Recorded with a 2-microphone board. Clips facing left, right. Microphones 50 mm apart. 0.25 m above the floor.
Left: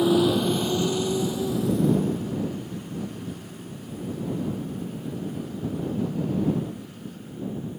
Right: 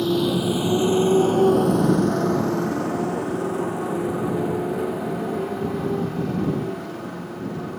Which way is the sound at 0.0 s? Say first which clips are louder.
Left 1 dB; 10° left (ahead or behind).